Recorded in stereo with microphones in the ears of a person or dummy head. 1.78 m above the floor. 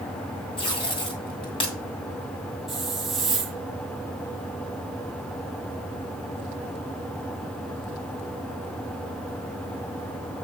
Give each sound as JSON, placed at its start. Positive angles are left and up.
{"t": 0.6, "sound": "tape being pulled", "side_deg": 30, "distance_m": 2.0}
{"t": 2.7, "sound": "a hiss", "side_deg": 0, "distance_m": 0.9}